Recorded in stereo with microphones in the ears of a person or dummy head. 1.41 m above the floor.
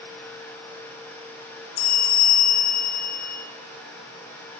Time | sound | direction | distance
1.8 | a bell | 85° left | 3 m